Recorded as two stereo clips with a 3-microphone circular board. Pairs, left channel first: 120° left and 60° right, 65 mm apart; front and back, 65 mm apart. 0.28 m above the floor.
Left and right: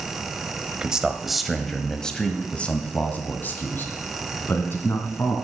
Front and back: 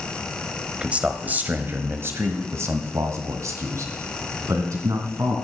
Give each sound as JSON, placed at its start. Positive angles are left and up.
{"t": 0.8, "sound": "a man speaking", "azimuth_deg": -125, "distance_m": 1.3}